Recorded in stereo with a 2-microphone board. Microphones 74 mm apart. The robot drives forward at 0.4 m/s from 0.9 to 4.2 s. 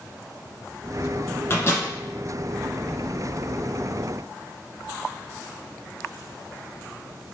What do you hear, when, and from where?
1.5 s a microwave: 35° left (ahead or behind), 1.2 m